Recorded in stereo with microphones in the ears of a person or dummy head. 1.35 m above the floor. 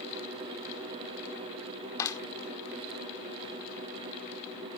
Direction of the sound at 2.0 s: 25° left (ahead or behind).